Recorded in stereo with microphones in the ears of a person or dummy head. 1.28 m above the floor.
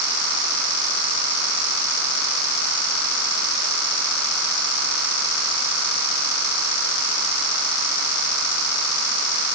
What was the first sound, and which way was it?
Only background noise.